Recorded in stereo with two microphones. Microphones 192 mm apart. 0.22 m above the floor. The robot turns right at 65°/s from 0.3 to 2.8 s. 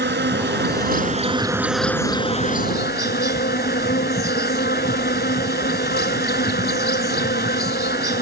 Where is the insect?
95° right; by 8.2 s 65° left.